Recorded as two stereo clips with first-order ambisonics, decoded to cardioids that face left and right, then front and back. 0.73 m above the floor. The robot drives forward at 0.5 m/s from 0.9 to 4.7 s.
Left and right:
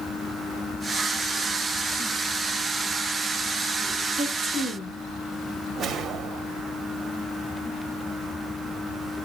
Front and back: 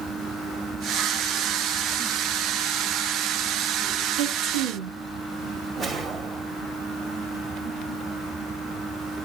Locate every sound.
4.2 s a woman speaking: 165° right, 1.3 m
5.8 s a whoosh: 135° right, 0.7 m